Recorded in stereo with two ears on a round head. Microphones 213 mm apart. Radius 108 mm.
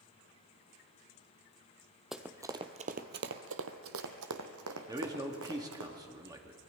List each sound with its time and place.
2.1 s running footsteps: centre (ahead or behind), 1.1 m; by 5.9 s 60° right (ahead or behind), 3 m
4.9 s a man speaking: 15° right (ahead or behind), 1.3 m